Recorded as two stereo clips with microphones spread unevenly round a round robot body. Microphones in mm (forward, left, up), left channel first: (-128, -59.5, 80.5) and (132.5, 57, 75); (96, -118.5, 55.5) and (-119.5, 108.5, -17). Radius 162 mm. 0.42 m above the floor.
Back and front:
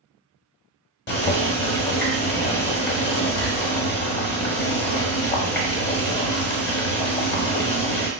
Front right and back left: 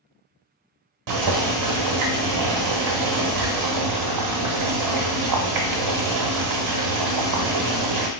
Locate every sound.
1.1 s boiling: 150° left, 0.8 m